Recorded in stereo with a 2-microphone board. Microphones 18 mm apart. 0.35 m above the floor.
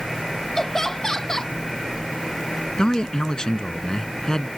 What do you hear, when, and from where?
0.6 s laughter: 25° left (ahead or behind)
2.8 s a man speaking: 40° left (ahead or behind)